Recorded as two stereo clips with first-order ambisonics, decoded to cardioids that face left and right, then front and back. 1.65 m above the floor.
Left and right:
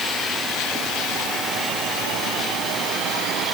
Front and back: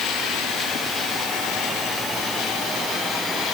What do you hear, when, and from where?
Only background noise.